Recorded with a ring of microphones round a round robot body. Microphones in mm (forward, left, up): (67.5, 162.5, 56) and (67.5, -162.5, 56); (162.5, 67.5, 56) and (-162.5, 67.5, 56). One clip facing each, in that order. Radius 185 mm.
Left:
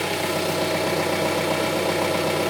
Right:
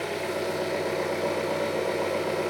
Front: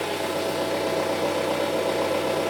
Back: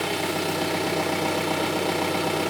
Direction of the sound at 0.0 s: 130° left.